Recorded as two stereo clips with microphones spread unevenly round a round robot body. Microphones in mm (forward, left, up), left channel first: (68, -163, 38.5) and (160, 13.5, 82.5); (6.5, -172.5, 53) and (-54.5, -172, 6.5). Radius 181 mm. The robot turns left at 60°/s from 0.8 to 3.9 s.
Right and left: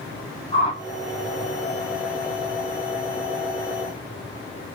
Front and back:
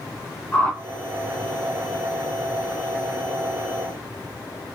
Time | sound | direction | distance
0.5 | a whoosh | 125° right | 1.6 m